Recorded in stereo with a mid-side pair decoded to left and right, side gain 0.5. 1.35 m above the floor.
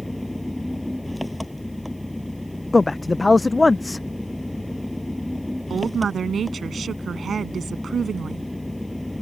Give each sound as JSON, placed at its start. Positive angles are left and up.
{"t": 0.0, "sound": "an engine running", "azimuth_deg": 5}
{"t": 2.7, "sound": "a man speaking", "azimuth_deg": 15}
{"t": 5.7, "sound": "a woman speaking", "azimuth_deg": -45}